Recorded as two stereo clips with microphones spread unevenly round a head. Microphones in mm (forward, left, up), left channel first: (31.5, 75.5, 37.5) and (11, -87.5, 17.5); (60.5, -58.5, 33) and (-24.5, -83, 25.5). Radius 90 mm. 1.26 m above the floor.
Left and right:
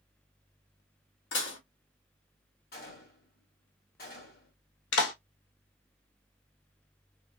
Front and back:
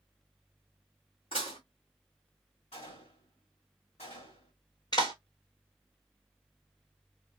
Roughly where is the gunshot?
Ahead left.